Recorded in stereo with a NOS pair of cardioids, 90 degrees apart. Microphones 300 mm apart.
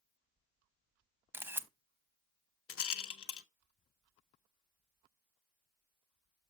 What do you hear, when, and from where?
1.3 s a camera shutter: 5° right, 0.8 m
2.7 s a rattle: 50° left, 0.9 m